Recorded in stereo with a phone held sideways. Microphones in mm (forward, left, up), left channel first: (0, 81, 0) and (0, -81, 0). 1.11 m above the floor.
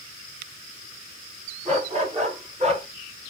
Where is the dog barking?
45° right (ahead or behind), 4 m.